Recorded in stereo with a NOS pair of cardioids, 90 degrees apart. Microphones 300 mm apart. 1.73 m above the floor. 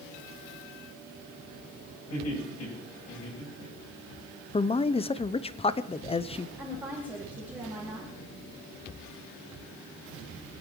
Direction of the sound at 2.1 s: 55° left.